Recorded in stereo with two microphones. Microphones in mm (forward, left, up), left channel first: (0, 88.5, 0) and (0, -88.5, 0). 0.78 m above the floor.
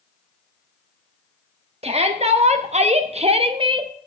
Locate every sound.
1.8 s a shout: 35° right (ahead or behind), 1.2 m; by 3.9 s 25° right (ahead or behind), 0.7 m